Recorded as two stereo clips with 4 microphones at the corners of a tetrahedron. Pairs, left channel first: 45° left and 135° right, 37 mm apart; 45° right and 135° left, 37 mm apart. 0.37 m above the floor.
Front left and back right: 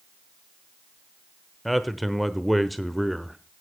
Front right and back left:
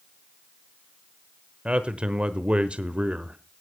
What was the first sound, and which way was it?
A man speaking, 135° left.